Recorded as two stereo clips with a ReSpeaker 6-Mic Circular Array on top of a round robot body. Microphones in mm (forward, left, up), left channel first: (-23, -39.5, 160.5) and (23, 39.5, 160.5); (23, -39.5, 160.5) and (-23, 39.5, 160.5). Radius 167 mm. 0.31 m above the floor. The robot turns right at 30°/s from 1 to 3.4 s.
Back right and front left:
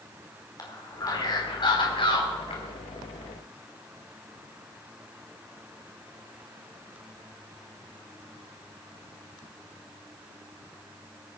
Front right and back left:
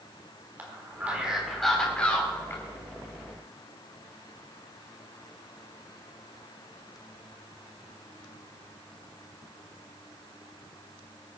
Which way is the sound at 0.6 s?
165° right.